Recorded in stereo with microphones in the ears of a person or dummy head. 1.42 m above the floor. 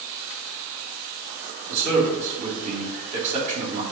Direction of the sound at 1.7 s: 40° right (ahead or behind).